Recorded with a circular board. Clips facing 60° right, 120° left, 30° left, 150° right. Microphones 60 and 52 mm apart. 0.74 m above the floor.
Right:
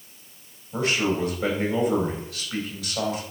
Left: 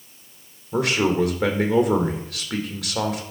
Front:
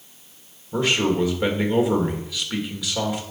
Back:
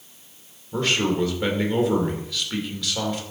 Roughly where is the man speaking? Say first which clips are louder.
Left 4 dB, front 2 dB; left.